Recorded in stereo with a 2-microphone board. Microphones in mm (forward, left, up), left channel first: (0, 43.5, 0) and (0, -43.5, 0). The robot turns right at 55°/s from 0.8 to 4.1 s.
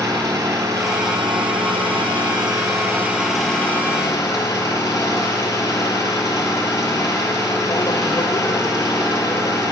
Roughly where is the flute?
I don't hear a flute.